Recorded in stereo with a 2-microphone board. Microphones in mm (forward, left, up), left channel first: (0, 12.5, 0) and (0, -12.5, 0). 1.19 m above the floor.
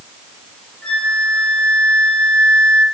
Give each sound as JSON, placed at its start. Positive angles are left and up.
{"t": 0.8, "sound": "a flute", "side_deg": 40, "distance_m": 9.0}